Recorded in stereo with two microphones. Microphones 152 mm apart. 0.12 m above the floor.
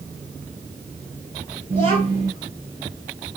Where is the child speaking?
40° right (ahead or behind), 2 m.